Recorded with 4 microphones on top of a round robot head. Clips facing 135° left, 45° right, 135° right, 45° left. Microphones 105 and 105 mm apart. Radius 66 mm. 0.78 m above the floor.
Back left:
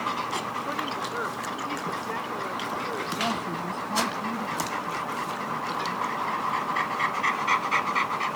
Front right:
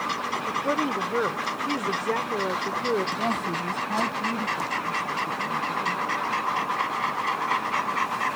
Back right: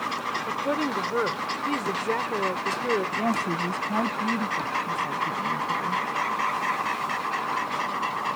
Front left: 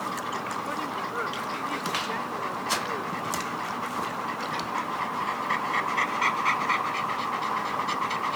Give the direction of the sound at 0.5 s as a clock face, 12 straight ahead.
3 o'clock.